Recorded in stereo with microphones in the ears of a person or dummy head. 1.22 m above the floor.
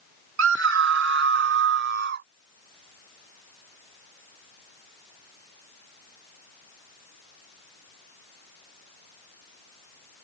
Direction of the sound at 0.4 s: 65° right (ahead or behind).